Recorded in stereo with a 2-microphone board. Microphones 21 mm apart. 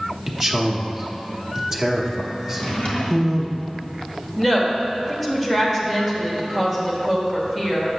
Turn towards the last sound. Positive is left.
turn(degrees=10)  # may be behind; listen again after turning